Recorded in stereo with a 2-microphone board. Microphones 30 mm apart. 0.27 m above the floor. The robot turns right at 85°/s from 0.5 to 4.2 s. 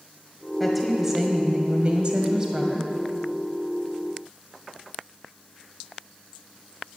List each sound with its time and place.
0.6 s a woman speaking: 165° left, 1.6 m; by 2.9 s 5° left, 1.6 m